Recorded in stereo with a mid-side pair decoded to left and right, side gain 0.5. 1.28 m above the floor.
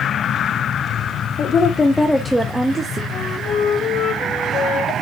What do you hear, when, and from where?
1.4 s a woman speaking: 55° left, 1.2 m; by 3.0 s 30° right, 1.5 m
3.1 s a flute: 70° left, 2 m